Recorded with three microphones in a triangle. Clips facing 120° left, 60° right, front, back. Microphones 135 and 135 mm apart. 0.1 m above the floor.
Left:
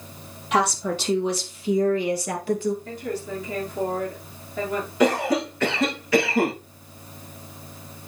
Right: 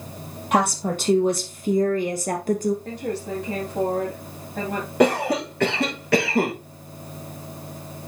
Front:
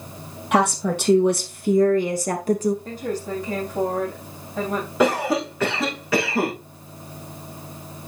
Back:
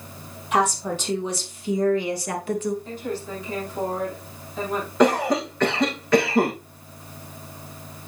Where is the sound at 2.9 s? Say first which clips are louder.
Right 2 dB, front 3 dB; 45° right, 5.5 m.